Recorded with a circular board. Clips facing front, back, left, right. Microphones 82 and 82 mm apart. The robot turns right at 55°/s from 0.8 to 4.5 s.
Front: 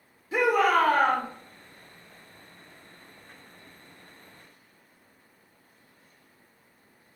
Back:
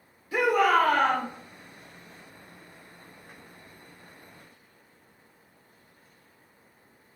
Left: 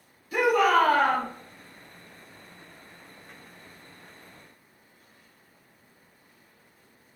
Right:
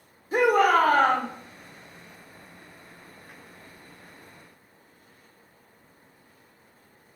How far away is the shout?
About 1.2 m.